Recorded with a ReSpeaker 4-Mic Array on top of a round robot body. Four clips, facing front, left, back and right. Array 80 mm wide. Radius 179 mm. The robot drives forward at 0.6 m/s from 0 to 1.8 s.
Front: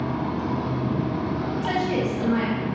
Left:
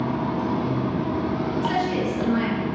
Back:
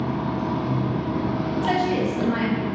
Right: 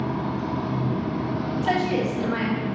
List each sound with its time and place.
0.0 s running water: 80° left, 1.2 m; by 2.8 s 125° left, 1.5 m
1.6 s a woman speaking: 110° right, 3 m; by 2.7 s 115° right, 3 m